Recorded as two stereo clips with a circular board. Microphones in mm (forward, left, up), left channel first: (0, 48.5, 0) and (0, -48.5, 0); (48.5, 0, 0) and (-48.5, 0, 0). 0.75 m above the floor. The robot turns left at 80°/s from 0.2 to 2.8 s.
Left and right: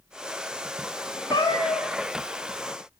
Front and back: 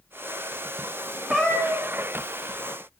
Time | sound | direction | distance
1.3 | a cat meowing | 95° left | 0.8 m